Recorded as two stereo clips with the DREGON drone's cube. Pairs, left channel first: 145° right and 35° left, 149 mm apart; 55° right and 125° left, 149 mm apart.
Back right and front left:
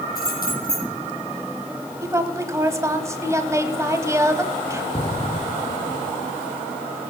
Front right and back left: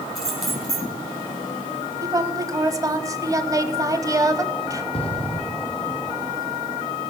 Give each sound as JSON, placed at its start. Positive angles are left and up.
{"t": 0.1, "sound": "keys jangling", "azimuth_deg": -145, "distance_m": 4.5}
{"t": 2.0, "sound": "a woman speaking", "azimuth_deg": 85, "distance_m": 1.0}
{"t": 4.9, "sound": "an explosion", "azimuth_deg": -100, "distance_m": 1.2}